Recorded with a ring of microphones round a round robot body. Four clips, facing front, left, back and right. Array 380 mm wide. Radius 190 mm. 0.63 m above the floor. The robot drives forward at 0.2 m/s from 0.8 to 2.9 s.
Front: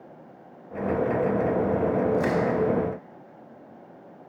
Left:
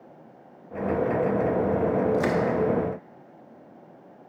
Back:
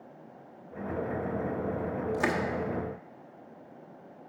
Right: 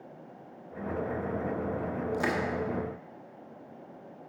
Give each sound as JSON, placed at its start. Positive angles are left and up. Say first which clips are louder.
{"t": 2.1, "sound": "crushing", "louder": "left 7 dB, front 6 dB", "azimuth_deg": 170, "distance_m": 1.0}